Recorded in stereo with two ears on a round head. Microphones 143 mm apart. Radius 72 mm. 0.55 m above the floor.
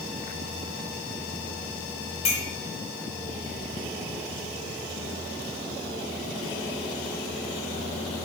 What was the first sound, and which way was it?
A clink, 50° left (ahead or behind).